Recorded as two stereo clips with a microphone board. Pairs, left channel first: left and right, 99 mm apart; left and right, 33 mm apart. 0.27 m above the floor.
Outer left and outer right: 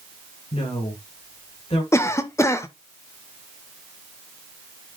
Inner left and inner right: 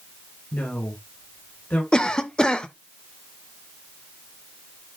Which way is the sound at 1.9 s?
30° left (ahead or behind).